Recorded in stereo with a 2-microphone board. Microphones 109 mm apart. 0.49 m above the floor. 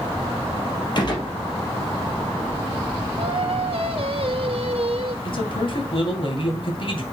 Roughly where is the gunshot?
Left.